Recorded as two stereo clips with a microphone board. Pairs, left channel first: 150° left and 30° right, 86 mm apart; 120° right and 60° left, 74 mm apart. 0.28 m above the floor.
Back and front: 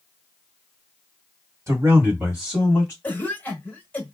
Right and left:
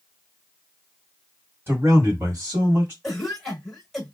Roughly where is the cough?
Behind left.